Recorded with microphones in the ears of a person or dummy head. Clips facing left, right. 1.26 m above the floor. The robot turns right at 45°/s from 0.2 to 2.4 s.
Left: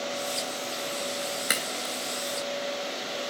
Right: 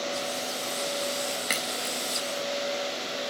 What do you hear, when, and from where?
1.5 s a crack: 10° left (ahead or behind), 0.7 m; by 1.9 s centre (ahead or behind), 0.7 m